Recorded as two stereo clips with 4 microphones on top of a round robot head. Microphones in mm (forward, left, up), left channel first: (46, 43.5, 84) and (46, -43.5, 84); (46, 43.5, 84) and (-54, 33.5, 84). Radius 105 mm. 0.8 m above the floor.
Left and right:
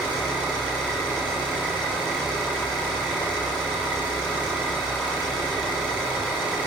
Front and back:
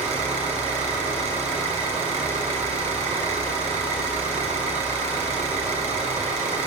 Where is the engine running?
170° right, 4 m.